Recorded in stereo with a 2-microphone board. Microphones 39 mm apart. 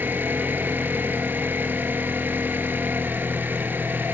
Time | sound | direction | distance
0.0 | an engine running | 70° right (ahead or behind) | 2 m